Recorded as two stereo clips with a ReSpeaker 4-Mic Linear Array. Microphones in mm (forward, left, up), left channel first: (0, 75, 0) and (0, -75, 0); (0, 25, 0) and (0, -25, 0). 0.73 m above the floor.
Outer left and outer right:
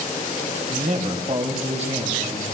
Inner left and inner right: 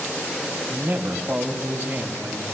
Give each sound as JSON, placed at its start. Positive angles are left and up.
{"t": 0.7, "sound": "a man speaking", "side_deg": -50, "distance_m": 4.5}